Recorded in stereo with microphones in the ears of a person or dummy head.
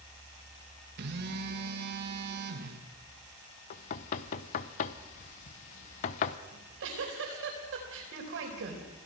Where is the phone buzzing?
60° right (ahead or behind), 2 m.